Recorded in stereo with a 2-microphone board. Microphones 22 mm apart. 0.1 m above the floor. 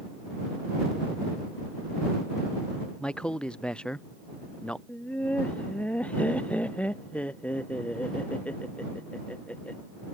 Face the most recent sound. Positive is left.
turn(degrees=75)  # may be behind; listen again after turning